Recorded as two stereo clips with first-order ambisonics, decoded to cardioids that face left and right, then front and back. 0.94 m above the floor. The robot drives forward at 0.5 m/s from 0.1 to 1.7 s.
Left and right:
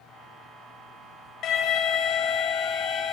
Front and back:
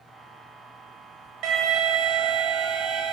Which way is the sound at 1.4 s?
140° left.